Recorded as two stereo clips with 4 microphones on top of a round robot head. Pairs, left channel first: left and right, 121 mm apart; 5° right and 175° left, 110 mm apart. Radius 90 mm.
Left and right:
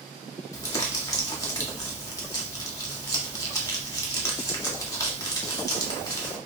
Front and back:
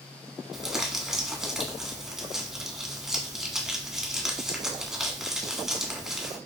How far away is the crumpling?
About 1.4 m.